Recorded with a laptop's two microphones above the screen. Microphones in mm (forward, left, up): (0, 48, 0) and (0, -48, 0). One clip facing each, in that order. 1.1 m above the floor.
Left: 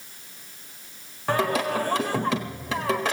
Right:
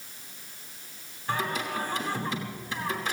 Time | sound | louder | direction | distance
1.3 | singing | left 7 dB | 80° left | 1.5 m